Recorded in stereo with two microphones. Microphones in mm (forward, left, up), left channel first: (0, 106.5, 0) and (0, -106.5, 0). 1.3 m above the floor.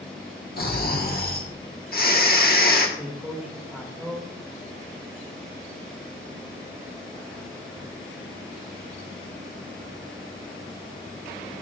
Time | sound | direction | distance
0.6 | snoring | 45° left (ahead or behind) | 1.3 m
3.0 | a man speaking | 5° right (ahead or behind) | 2 m